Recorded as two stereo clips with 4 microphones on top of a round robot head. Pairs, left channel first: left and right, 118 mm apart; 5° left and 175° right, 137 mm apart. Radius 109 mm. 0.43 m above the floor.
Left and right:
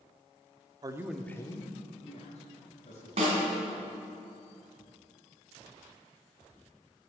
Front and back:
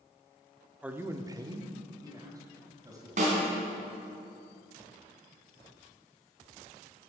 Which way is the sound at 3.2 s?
135° right.